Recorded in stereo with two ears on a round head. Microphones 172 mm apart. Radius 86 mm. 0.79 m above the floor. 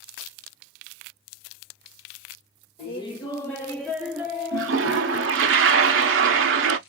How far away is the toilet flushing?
About 0.5 m.